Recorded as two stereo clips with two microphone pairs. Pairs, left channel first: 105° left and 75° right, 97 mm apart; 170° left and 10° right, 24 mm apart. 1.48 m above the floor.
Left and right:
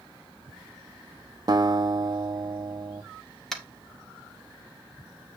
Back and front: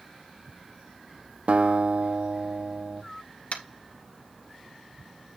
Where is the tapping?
170° right, 1.9 m.